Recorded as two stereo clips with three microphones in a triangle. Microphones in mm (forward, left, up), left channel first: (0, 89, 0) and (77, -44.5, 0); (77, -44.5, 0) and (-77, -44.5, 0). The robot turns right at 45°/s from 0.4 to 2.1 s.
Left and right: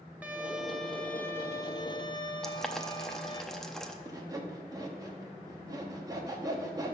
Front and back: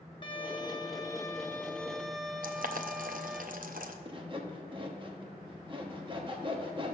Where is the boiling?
155° right, 0.6 m.